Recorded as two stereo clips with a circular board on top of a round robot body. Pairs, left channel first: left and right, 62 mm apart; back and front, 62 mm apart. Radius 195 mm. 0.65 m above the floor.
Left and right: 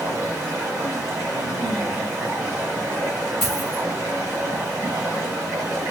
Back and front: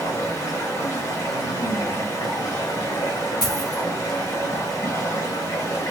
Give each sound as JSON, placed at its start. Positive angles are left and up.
{"t": 0.0, "sound": "running water", "azimuth_deg": -140, "distance_m": 0.7}
{"t": 3.4, "sound": "a dropped coin", "azimuth_deg": 175, "distance_m": 1.6}